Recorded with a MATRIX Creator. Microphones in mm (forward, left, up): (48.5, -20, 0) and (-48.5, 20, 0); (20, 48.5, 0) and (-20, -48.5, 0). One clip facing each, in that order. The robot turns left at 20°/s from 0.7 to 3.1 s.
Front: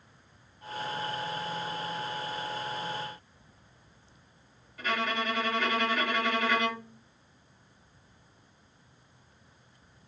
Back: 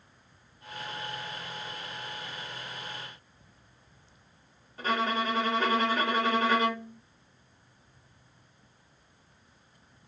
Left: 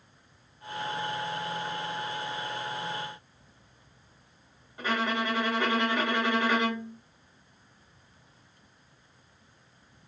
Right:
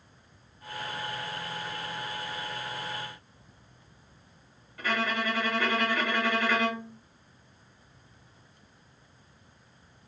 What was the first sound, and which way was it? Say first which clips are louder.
A violin: back 3 dB, left 1 dB; 125° left.